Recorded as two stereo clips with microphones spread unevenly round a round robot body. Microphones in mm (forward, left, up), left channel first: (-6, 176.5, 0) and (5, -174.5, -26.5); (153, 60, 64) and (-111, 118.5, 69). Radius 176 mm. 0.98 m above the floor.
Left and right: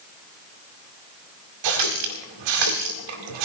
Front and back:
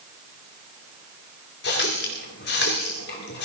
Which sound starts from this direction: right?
A running tap, at 1.6 s.